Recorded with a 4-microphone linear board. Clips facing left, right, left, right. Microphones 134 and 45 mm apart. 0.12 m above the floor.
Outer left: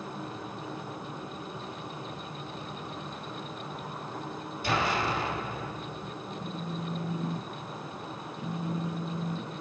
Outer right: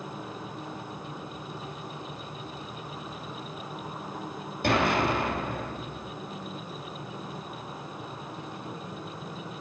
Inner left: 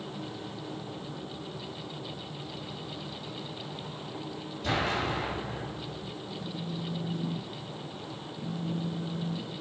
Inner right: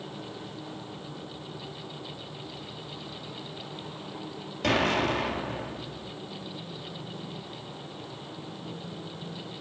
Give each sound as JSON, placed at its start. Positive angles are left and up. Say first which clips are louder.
{"t": 4.6, "sound": "an explosion", "louder": "outer right 4 dB, inner right 5 dB", "side_deg": -60, "distance_m": 3.0}
{"t": 6.4, "sound": "a phone buzzing", "louder": "outer left 3 dB, inner left 3 dB", "side_deg": 70, "distance_m": 2.0}